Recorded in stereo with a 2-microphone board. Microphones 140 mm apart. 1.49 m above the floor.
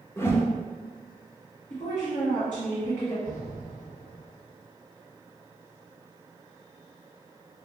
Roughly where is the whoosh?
Centre.